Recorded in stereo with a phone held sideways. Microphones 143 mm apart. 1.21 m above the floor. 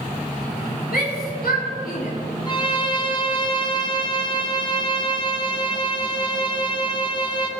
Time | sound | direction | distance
0.9 | a shout | 80° left | 4 m
2.5 | a violin | 30° left (ahead or behind) | 1.5 m